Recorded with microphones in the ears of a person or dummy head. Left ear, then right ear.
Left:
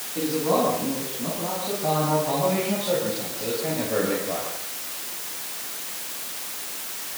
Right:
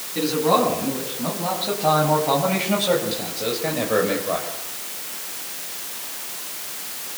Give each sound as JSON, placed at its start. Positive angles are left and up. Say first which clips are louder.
{"t": 0.1, "sound": "a man speaking", "louder": "right 4 dB", "side_deg": -70, "distance_m": 9.5}